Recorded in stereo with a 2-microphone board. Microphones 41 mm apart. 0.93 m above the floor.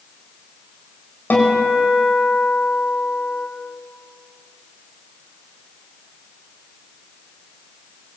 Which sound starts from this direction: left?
A guitar, at 1.3 s.